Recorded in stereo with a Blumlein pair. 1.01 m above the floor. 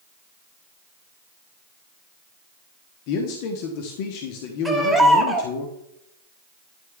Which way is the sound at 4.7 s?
5° left.